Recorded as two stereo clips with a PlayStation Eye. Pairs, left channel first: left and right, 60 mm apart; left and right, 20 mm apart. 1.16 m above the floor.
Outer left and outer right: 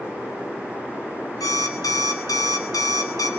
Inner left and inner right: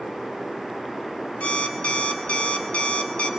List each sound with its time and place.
1.4 s an alarm clock: 85° left, 3 m